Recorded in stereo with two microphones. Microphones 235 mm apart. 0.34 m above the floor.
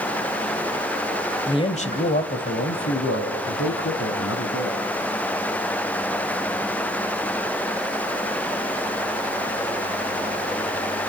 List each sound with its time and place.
1.5 s a man speaking: 20° left (ahead or behind), 1.5 m; by 4.8 s 70° left (ahead or behind), 3.5 m